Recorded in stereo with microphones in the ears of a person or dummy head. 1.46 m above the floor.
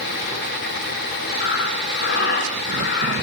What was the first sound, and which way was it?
Breathing, 55° left (ahead or behind).